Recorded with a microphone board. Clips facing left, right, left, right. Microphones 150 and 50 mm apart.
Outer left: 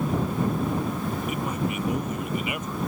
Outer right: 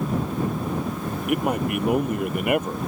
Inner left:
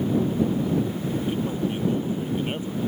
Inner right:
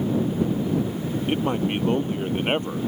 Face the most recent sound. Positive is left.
turn(degrees=-55)  # may be behind; listen again after turning